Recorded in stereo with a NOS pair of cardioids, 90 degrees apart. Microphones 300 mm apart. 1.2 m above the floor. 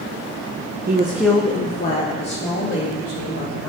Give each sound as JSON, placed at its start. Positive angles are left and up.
{"t": 0.9, "sound": "a woman speaking", "azimuth_deg": -35, "distance_m": 0.6}